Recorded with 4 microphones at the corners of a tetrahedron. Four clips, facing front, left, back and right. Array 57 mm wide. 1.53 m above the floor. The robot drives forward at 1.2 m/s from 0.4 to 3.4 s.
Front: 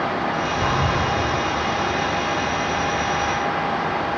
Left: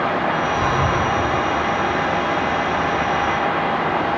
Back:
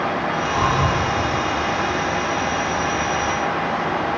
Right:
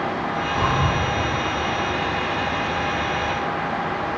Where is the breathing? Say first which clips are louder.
Left 2 dB, back 4 dB; straight behind, 2.0 m.